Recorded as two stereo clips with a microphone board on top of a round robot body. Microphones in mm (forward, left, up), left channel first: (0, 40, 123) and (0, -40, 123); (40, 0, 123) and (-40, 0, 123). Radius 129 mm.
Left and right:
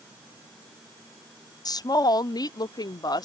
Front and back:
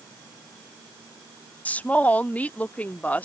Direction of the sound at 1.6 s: 70° left.